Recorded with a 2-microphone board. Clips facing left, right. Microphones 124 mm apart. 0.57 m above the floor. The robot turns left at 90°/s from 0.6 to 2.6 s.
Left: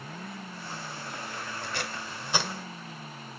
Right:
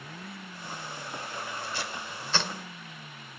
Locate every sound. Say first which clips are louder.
1.6 s tape being pulled: left 1 dB; 65° left (ahead or behind), 2.0 m; by 2.5 s centre (ahead or behind), 2.0 m